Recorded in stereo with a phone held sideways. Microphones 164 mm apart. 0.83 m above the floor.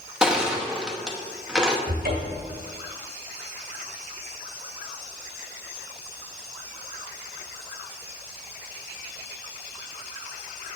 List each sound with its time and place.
0.2 s crushing: 5° right (ahead or behind), 0.9 m
1.9 s a cupboard door: 70° right (ahead or behind), 1.6 m